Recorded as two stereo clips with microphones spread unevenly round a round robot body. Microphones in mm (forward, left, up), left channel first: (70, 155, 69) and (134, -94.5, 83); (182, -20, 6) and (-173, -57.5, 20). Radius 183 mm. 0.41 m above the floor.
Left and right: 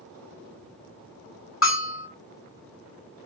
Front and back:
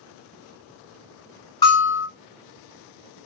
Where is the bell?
85° left, 2 m.